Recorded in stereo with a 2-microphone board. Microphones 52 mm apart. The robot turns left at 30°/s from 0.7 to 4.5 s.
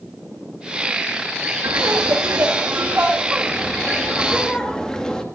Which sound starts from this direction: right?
Laughter, at 1.6 s.